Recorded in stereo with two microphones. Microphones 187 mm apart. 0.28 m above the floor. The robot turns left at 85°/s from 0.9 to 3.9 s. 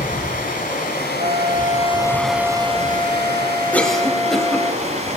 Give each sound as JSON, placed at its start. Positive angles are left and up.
{"t": 0.0, "sound": "running water", "azimuth_deg": 120, "distance_m": 1.7}
{"t": 1.2, "sound": "a flute", "azimuth_deg": -85, "distance_m": 0.7}
{"t": 3.7, "sound": "a cough", "side_deg": 10, "distance_m": 1.2}